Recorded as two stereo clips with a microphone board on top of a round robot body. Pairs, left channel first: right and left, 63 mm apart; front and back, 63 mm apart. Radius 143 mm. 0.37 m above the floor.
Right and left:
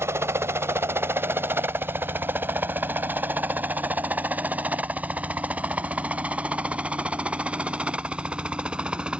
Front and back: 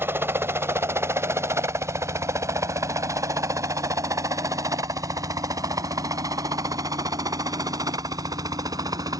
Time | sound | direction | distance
0.0 | a helicopter | 130° left | ?